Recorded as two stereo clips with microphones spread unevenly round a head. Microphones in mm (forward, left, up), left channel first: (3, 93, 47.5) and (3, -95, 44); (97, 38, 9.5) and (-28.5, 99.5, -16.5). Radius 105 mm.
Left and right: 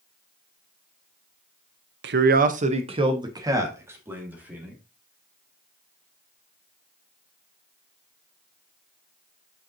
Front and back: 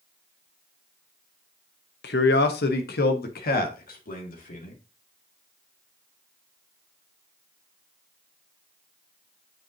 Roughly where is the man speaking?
Ahead right.